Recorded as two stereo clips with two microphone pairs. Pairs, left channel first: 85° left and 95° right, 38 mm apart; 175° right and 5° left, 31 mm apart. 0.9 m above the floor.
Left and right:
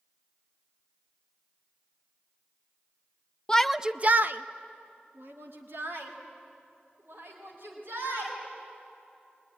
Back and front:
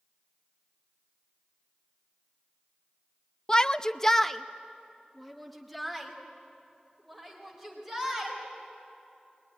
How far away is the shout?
About 0.6 m.